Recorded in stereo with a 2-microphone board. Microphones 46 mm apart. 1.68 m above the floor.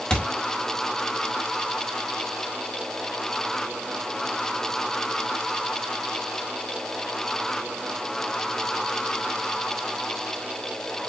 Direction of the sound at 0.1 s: 20° left (ahead or behind).